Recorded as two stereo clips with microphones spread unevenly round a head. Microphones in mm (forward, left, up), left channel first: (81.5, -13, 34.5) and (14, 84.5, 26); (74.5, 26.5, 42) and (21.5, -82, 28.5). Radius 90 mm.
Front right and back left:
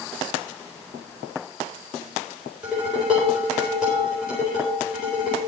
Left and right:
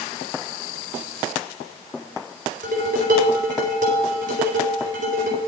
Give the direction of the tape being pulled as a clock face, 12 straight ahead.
I don't hear tape being pulled.